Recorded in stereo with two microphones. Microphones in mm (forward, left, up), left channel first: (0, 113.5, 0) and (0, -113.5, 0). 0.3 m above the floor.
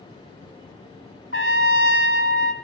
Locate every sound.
1.3 s a trumpet: 60° left (ahead or behind), 0.8 m